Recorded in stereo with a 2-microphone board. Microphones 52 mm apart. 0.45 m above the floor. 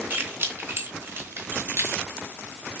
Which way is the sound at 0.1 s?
45° right (ahead or behind).